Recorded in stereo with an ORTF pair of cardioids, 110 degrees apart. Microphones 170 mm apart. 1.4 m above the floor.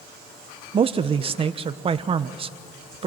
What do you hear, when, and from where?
0.7 s a man speaking: 35° right, 1.1 m